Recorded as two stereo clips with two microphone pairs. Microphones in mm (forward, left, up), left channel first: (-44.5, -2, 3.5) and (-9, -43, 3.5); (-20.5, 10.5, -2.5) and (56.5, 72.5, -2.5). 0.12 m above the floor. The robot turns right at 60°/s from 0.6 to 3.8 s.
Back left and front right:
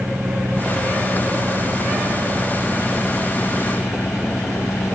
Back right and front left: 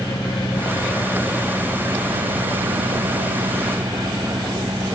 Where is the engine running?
100° right; by 5.0 s 90° left.